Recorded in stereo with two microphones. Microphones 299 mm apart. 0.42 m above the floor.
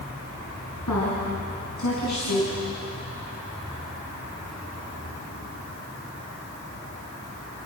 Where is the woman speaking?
80° left, 4 m; by 2.6 s 75° left (ahead or behind), 3.5 m.